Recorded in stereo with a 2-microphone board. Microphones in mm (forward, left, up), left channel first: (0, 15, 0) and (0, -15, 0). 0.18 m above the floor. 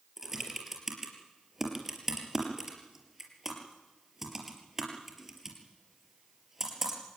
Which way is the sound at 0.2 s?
10° right (ahead or behind).